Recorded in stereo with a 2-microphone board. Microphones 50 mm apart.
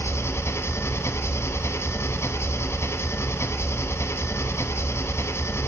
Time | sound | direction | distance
0.0 | an engine running | 65° left (ahead or behind) | 1.1 m